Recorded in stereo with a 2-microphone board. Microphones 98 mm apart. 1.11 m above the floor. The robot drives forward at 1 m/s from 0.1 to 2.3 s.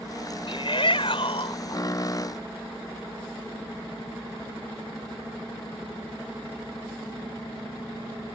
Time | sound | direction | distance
0.5 | a shout | 60° left (ahead or behind) | ?